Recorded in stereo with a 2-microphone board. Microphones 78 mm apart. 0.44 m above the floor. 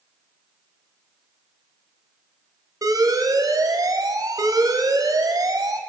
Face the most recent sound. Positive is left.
turn(degrees=-50)  # may be behind; listen again after turning